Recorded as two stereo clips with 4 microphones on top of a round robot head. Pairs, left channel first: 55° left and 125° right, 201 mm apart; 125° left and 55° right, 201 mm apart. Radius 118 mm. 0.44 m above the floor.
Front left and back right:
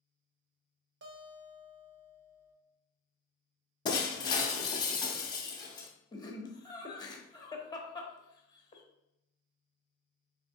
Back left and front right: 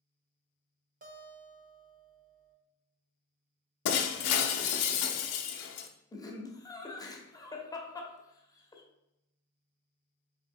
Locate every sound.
1.0 s a guitar: 100° right, 0.9 m
3.9 s breaking glass: 125° left, 0.5 m
6.1 s laughter: 85° left, 0.9 m